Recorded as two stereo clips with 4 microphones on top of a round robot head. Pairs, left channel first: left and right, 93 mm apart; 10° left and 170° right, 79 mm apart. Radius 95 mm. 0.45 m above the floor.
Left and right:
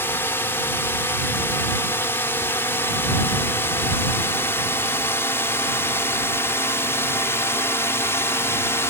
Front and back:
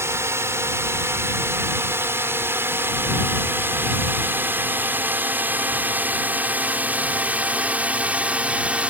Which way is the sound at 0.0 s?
145° left.